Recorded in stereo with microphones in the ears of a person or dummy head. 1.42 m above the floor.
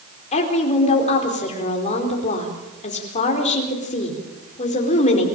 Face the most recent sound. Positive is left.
turn(degrees=35)  # may be behind; listen again after turning